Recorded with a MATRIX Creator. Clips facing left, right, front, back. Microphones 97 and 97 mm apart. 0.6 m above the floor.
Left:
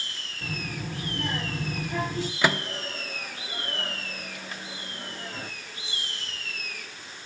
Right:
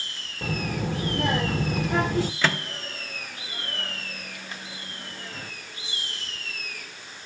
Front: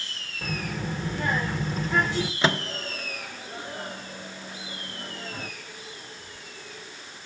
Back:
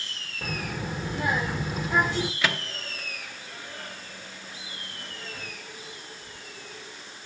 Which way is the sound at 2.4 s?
25° left.